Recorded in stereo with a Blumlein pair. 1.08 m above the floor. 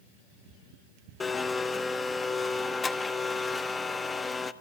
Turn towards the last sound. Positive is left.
turn(degrees=15)